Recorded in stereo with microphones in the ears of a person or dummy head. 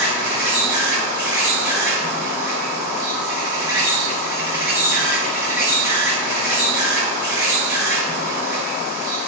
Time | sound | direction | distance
0.0 | an insect | 20° right (ahead or behind) | 1.7 m